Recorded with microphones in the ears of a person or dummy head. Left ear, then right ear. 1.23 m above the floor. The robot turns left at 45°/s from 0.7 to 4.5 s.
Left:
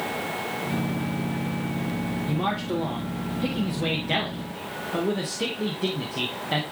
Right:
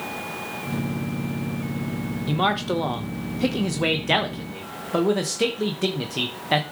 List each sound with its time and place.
2.3 s a man speaking: 55° right, 0.9 m; by 6.6 s 155° right, 0.9 m